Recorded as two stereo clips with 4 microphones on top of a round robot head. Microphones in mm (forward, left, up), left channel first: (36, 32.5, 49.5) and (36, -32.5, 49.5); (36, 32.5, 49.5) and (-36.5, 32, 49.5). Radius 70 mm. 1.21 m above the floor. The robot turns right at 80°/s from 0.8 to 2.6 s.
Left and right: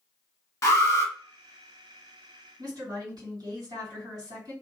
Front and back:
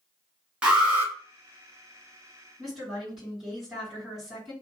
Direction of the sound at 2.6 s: 90° right.